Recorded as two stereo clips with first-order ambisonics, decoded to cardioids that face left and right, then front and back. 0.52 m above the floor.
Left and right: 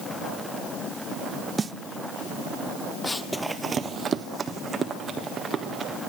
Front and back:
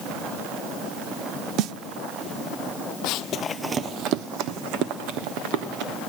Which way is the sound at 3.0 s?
10° left.